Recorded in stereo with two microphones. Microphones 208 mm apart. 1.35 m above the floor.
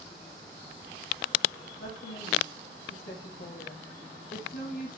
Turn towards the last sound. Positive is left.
turn(degrees=40)  # may be behind; listen again after turning